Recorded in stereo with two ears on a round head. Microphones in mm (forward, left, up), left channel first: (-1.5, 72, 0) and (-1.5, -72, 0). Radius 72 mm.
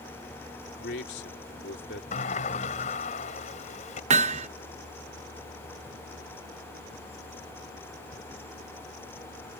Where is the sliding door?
45° left (ahead or behind).